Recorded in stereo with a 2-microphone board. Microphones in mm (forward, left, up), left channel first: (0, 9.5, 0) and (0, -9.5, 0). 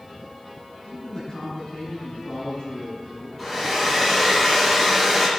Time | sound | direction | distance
0.8 | a man speaking | 45° left (ahead or behind) | 6.5 m
3.4 | a hair dryer | 5° left (ahead or behind) | 6.5 m